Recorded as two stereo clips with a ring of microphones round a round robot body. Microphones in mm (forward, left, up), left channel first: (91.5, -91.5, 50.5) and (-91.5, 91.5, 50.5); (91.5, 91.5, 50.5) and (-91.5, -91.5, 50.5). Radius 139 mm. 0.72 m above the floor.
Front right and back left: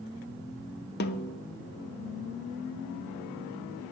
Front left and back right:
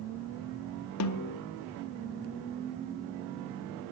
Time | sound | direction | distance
1.0 | a snare drum | 10° left | 0.6 m